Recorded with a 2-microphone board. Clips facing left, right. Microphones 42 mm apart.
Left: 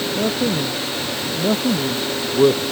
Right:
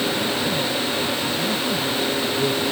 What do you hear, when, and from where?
0.1 s a man speaking: 50° left (ahead or behind)